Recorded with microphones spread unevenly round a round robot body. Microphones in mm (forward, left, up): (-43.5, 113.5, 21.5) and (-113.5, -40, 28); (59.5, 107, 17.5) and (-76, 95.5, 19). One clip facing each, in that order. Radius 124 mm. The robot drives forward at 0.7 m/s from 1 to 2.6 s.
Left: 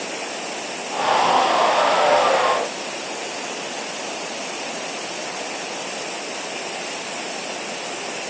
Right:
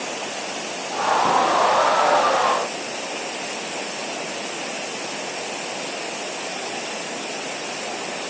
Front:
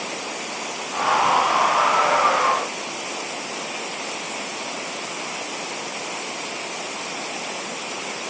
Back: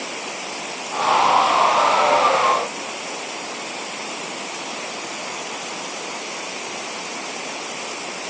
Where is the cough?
No cough in this recording.